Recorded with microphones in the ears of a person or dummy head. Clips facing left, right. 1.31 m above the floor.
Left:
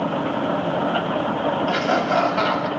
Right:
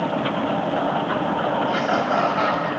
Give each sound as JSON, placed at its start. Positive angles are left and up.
{"t": 1.7, "sound": "laughter", "side_deg": 30, "distance_m": 7.0}